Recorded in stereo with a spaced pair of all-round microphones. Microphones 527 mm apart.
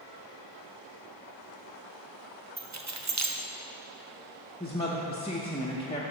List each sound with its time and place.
2.6 s keys jangling: 35° right (ahead or behind), 0.5 m
4.6 s a woman speaking: 10° left (ahead or behind), 0.5 m